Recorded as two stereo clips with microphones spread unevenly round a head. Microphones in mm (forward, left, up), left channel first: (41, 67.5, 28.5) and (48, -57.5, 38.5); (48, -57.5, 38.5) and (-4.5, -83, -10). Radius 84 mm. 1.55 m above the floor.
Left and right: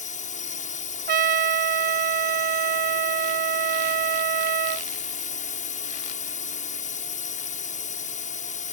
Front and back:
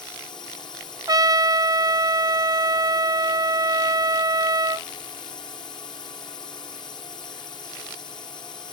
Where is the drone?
70° left.